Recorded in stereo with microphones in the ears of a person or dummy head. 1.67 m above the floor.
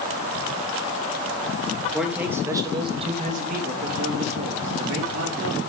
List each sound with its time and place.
1.9 s a man speaking: 5° right (ahead or behind), 3.5 m; by 5.6 s 85° right, 5 m